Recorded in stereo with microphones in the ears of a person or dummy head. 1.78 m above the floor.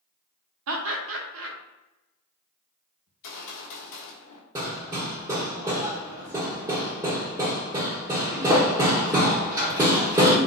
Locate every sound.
0.7 s laughter: 80° right, 0.7 m
3.1 s a gunshot: 65° left (ahead or behind), 0.7 m
4.5 s hammering: 15° right (ahead or behind), 0.6 m